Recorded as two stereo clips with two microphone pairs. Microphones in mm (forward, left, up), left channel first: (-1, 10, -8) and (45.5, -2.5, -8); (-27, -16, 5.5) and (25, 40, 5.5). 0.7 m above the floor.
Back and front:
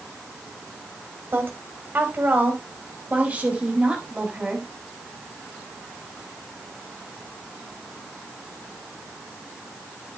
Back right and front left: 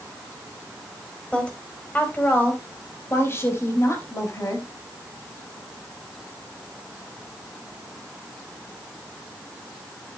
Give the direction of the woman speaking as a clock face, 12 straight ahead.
2 o'clock.